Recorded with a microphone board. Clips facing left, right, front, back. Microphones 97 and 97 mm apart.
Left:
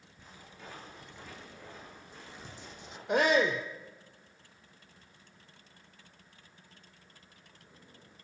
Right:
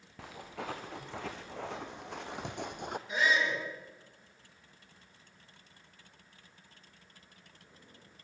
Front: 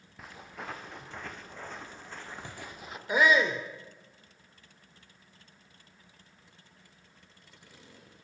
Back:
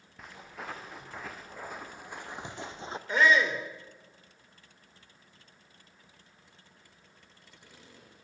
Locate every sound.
0.2 s footsteps: 90° right, 3.5 m; by 3.0 s 120° right, 1.5 m
3.1 s a shout: 80° left, 1.9 m